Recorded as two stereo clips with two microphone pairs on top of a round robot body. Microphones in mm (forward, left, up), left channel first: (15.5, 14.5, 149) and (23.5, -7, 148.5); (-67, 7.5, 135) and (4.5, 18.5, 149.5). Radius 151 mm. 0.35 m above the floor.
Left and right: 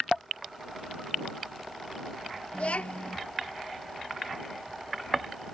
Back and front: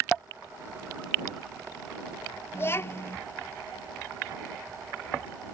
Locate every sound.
2.5 s a child speaking: 130° left